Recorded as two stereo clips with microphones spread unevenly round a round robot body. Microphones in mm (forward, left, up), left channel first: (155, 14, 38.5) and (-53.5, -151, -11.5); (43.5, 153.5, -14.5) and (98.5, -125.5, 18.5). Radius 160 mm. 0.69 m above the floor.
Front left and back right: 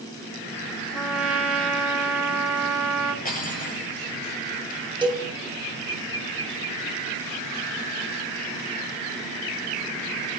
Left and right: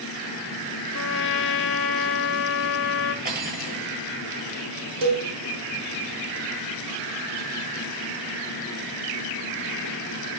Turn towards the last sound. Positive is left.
turn(degrees=-70)